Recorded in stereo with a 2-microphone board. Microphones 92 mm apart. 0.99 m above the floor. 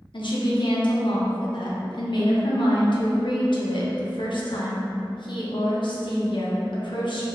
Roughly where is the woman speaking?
Left.